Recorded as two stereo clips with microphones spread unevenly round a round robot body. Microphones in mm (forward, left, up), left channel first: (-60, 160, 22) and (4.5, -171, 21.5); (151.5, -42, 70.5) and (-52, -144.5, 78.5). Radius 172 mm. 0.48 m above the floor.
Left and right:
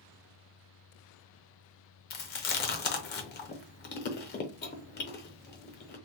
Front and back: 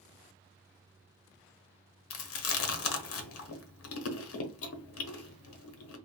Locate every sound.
2.1 s chewing: 40° left, 0.7 m